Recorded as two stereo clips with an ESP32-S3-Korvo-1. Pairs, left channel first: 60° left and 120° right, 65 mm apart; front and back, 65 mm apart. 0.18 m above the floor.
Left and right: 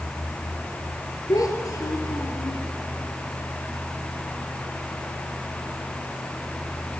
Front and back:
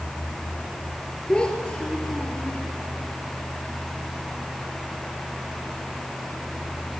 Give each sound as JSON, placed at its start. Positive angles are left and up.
{"t": 1.3, "sound": "a child speaking", "azimuth_deg": 75, "distance_m": 3.0}